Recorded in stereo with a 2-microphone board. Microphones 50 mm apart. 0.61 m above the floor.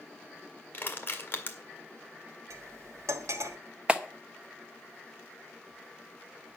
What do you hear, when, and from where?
0.7 s crushing: 40° left (ahead or behind), 2 m
2.5 s cutlery clinking: 80° right, 1.5 m
3.9 s a clap: 20° right (ahead or behind), 1.1 m